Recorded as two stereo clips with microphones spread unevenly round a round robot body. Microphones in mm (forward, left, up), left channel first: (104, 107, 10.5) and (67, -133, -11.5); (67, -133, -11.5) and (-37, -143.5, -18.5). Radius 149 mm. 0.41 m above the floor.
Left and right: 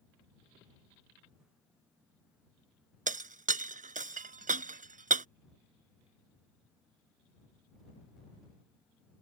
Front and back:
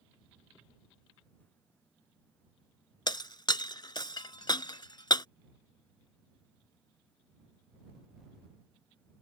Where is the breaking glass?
40° right.